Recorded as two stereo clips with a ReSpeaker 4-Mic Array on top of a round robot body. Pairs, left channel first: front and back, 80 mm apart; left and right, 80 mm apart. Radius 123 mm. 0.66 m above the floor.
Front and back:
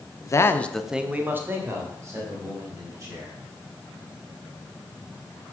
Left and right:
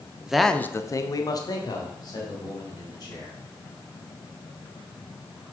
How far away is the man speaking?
About 1.0 m.